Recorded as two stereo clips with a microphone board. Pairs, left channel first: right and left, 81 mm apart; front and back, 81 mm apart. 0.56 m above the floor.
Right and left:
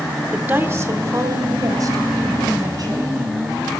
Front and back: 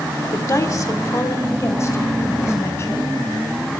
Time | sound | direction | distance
0.3 | a woman speaking | 20° left | 1.1 m